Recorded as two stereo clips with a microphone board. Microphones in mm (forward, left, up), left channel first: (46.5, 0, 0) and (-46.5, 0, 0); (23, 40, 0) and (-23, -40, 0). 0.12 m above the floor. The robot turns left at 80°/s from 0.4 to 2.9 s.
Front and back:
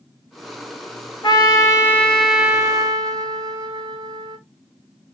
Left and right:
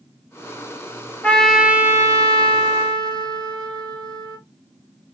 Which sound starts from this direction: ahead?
A trumpet, at 1.2 s.